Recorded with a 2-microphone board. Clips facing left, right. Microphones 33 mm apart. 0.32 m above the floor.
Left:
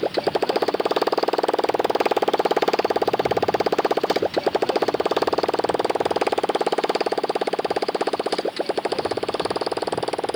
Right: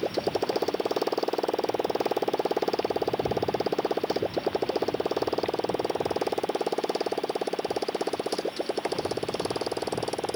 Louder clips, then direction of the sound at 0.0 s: Left 6 dB; 55° left (ahead or behind).